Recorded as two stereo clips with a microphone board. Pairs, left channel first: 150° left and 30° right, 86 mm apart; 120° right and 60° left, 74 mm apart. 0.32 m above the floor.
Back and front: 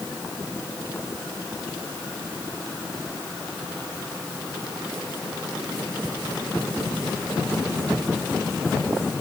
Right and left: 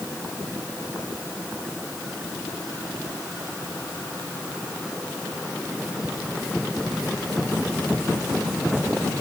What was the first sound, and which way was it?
Only background noise.